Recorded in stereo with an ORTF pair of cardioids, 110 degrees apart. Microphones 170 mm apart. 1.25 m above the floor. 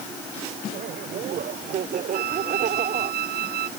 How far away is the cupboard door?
I don't hear a cupboard door.